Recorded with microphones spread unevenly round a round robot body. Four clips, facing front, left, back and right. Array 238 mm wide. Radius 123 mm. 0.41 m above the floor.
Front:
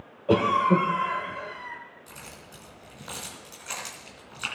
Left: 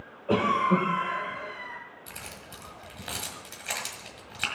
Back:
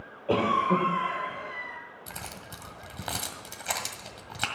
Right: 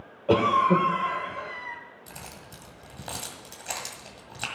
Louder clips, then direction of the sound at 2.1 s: Even, back 4 dB; 165° right.